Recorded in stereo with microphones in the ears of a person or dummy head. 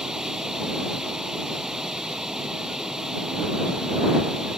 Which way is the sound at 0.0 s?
Centre (ahead or behind).